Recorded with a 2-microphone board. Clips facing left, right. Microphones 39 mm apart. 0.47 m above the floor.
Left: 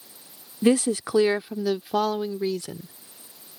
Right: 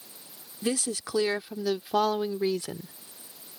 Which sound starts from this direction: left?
A woman speaking, at 0.6 s.